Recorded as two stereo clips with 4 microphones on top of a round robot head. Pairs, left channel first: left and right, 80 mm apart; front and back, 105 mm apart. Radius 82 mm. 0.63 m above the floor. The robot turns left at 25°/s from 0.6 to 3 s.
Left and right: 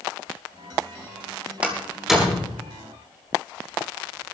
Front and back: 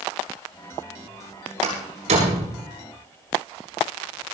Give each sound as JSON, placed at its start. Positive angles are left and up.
{"t": 1.6, "sound": "a door slam", "azimuth_deg": -165, "distance_m": 9.0}